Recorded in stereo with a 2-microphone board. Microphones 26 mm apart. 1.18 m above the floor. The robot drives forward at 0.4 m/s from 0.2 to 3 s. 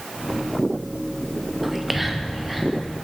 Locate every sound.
1.6 s whispering: 10° right (ahead or behind), 0.6 m